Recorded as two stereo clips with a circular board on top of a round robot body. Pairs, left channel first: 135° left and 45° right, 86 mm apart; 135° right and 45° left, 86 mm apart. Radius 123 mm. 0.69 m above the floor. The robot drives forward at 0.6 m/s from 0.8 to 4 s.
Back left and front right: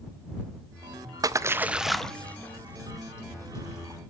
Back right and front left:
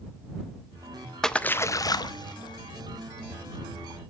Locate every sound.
1.2 s a splash: 50° right, 0.5 m; by 4.0 s 170° right, 1.5 m